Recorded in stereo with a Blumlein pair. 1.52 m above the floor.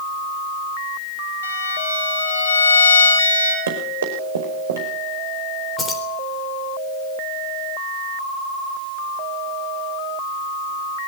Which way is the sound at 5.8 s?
20° left.